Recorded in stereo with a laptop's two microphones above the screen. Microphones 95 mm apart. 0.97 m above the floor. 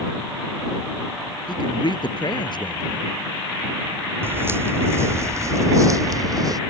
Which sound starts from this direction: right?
Footsteps, at 4.2 s.